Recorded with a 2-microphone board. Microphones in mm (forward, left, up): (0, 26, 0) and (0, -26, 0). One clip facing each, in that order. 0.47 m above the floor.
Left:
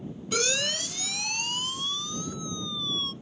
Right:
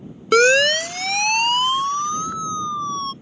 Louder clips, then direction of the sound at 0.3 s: Right 16 dB; 65° right (ahead or behind).